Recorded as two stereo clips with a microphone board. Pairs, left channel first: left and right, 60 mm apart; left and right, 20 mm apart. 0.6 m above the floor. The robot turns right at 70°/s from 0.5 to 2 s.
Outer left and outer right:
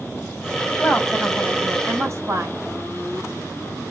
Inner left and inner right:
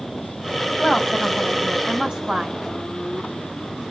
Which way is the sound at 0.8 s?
150° left.